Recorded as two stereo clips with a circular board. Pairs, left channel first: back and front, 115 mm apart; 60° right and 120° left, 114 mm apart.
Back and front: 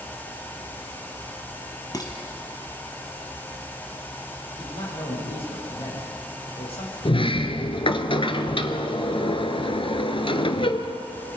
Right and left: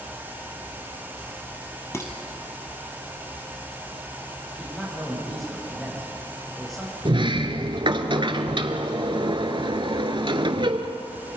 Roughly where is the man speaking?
Behind right.